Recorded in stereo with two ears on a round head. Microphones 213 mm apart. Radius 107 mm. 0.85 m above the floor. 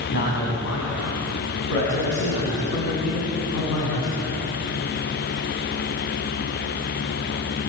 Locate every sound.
0.1 s a man speaking: 65° left (ahead or behind), 5.5 m; by 4.4 s 80° left, 7 m